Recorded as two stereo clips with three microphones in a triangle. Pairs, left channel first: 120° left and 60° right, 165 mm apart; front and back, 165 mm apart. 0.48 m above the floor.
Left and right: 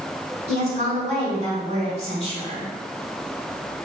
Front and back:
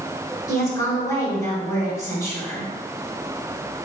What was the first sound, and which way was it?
A woman speaking, 60° right.